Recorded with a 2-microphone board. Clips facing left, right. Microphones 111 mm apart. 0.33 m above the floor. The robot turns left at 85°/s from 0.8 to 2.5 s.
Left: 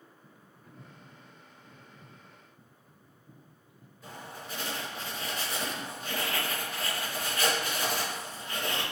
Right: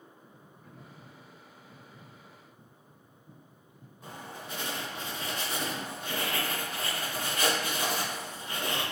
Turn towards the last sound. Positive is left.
turn(degrees=-60)  # may be behind; listen again after turning